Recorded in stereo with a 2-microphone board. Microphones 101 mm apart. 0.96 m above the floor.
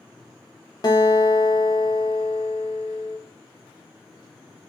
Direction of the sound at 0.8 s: 40° left (ahead or behind).